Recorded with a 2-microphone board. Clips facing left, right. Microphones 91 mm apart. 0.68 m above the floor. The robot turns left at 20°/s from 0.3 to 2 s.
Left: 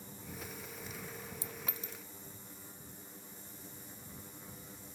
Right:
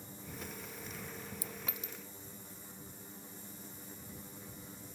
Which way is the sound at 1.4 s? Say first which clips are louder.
Even; 30° left (ahead or behind).